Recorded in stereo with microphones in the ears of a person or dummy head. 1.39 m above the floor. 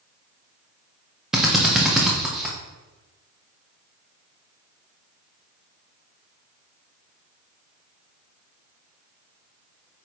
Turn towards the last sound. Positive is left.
turn(degrees=-5)  # may be behind; listen again after turning